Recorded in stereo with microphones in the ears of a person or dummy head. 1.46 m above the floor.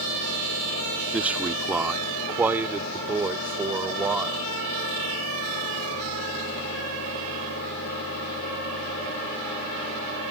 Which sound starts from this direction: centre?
A man speaking, at 1.1 s.